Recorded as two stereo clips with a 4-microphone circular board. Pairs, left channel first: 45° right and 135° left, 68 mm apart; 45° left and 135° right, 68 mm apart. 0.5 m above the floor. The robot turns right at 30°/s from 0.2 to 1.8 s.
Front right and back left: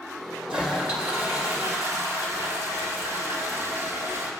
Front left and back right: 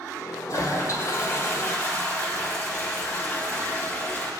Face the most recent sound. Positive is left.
turn(degrees=105)